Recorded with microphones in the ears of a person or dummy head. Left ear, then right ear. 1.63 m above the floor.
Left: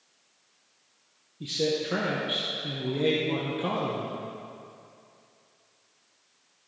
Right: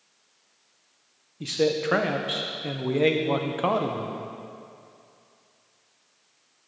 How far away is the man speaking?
About 0.7 m.